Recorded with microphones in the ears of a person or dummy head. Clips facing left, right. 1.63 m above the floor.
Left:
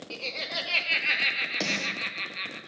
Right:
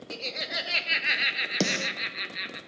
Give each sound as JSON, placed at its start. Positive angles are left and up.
{"t": 0.1, "sound": "laughter", "side_deg": -15, "distance_m": 1.2}
{"t": 1.6, "sound": "a snare drum", "side_deg": -40, "distance_m": 0.7}